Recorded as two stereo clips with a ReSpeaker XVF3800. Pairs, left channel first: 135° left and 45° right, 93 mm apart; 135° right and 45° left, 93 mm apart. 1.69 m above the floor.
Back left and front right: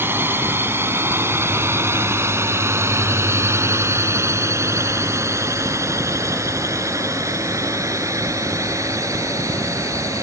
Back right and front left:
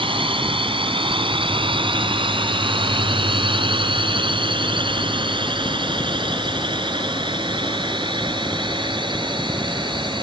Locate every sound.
0.0 s a drone: 25° left; by 10.2 s 10° left